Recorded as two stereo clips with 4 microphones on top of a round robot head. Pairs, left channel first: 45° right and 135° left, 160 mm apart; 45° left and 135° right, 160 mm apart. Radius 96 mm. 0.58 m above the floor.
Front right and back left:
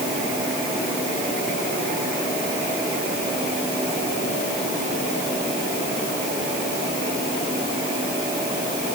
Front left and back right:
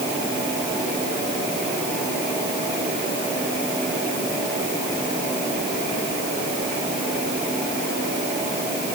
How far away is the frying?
No frying in this recording.